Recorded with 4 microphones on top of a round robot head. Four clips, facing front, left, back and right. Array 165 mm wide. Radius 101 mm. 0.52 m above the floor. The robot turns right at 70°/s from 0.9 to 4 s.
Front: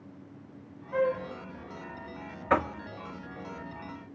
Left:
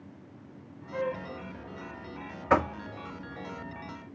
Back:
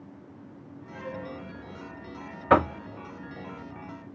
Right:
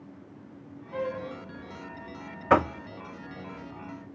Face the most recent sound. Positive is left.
turn(degrees=-50)